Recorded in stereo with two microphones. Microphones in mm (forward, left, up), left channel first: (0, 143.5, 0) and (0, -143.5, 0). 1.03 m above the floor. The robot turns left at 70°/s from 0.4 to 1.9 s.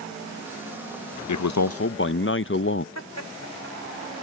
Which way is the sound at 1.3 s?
90° left.